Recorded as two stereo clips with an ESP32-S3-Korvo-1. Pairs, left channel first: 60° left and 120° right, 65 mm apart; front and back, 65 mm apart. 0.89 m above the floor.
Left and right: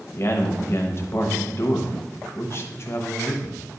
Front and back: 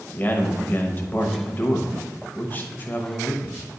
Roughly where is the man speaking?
Ahead left.